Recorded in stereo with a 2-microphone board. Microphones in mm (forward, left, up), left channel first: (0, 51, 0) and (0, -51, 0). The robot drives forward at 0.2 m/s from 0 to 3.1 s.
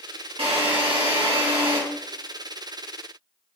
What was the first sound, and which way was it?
A drill, 65° right (ahead or behind).